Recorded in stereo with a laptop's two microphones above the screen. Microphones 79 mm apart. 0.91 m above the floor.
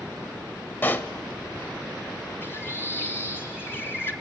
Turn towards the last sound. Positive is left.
turn(degrees=30)  # may be behind; listen again after turning